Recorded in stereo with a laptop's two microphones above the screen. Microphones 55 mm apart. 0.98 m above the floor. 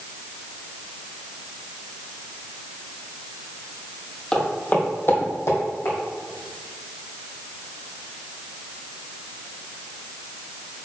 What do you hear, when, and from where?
4.3 s footsteps: 15° left (ahead or behind), 1.9 m; by 6.0 s 60° left (ahead or behind), 2.5 m